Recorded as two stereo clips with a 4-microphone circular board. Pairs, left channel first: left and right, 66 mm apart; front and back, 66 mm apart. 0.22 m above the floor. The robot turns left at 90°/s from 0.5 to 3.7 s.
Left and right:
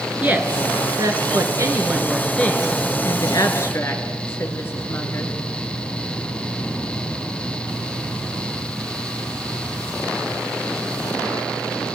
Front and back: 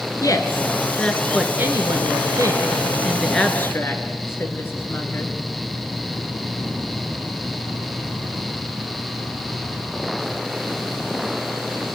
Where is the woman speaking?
25° right, 3 m; by 5.3 s 45° left, 3 m.